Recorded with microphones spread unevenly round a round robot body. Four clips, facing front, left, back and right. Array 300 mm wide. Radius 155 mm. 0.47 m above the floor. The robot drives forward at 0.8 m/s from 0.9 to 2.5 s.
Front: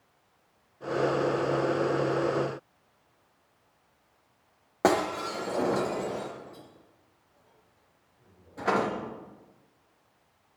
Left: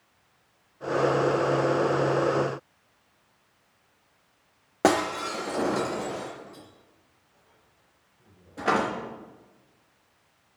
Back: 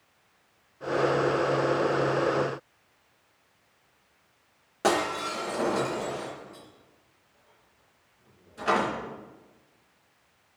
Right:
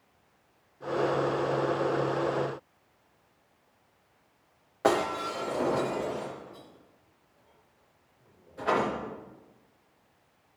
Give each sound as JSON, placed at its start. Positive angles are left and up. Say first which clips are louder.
{"t": 4.8, "sound": "breaking glass", "louder": "left 3 dB, front 1 dB", "azimuth_deg": 65, "distance_m": 4.0}